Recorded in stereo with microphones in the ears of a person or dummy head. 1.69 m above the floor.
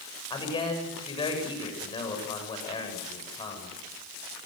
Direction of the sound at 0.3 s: 20° left (ahead or behind).